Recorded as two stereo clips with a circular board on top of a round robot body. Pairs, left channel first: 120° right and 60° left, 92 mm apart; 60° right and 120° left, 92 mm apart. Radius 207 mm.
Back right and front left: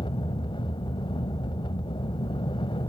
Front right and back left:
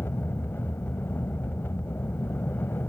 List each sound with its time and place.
0.0 s an aircraft: 125° right